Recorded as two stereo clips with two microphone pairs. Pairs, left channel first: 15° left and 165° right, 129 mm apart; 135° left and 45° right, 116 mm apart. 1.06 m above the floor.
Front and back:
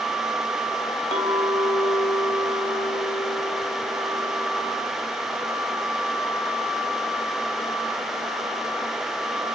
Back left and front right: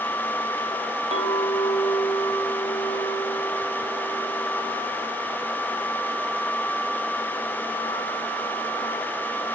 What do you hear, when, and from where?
1.1 s a clink: 15° right, 3.5 m